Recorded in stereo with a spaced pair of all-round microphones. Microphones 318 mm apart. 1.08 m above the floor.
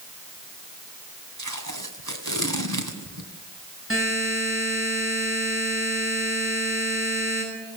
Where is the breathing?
No breathing in this recording.